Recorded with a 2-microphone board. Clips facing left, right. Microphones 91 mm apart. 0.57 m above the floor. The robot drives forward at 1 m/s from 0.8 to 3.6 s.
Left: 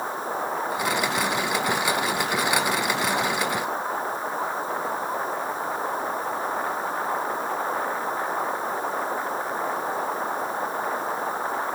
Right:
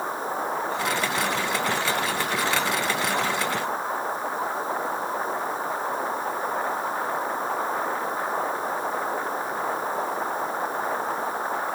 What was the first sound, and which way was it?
Only background noise.